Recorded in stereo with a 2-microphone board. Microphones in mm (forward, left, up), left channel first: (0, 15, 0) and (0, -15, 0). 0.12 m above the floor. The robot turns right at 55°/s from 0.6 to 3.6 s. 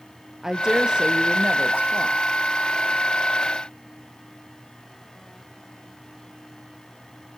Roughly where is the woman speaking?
Behind.